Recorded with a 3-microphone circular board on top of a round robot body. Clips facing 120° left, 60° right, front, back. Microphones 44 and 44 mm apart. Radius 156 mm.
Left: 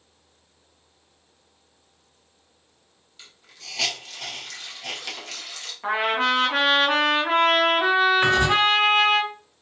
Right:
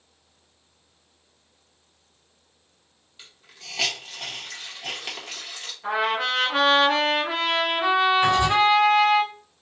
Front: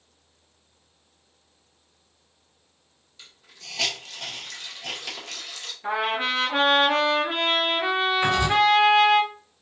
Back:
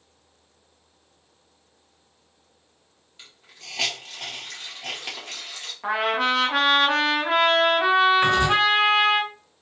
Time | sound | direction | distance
3.2 | a hiss | 130° right | 2 m
5.8 | a trumpet | 170° left | 1.3 m
8.2 | writing | 135° left | 1.9 m